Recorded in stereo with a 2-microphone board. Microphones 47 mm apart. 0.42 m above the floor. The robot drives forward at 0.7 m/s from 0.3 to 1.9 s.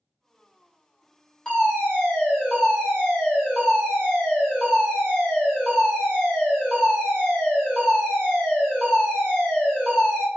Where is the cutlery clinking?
I don't hear cutlery clinking.